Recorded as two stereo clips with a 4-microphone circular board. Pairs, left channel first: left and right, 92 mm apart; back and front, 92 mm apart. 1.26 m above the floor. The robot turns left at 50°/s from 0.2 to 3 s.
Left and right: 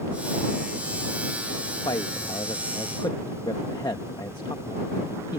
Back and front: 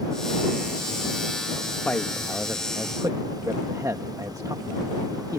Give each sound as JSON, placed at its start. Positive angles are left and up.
{"t": 1.9, "sound": "a man speaking", "azimuth_deg": 110}